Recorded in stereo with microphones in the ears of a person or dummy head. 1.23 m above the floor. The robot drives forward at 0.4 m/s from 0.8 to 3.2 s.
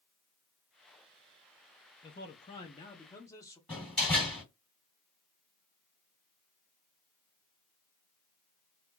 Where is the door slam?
Centre (ahead or behind), 1.7 m.